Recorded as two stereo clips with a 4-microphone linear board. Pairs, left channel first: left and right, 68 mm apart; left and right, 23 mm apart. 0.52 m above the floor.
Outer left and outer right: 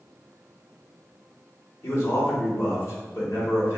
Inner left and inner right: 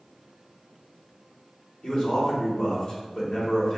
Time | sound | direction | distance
1.8 | a man speaking | 50° left (ahead or behind) | 1.9 m